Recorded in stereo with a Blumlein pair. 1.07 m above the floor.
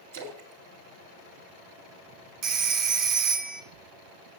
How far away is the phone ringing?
About 1.2 m.